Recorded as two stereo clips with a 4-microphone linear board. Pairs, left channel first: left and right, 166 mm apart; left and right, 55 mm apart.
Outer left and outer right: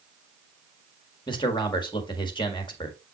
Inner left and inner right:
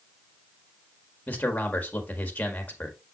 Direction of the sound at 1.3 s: 30° left (ahead or behind).